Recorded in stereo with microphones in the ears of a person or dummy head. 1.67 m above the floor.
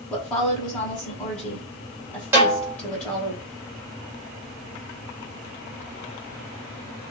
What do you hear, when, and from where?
0.1 s a woman speaking: 5° left (ahead or behind), 1.3 m
2.3 s a snare drum: 15° right (ahead or behind), 1.2 m